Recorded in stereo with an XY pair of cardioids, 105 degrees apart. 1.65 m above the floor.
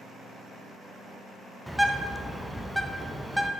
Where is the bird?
Straight ahead, 0.5 m.